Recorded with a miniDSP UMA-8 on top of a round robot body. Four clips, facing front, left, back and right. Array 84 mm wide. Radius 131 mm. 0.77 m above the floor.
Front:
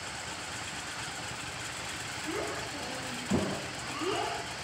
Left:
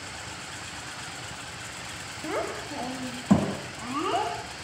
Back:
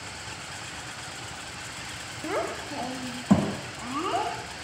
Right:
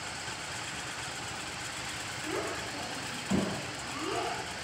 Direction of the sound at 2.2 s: 150° left.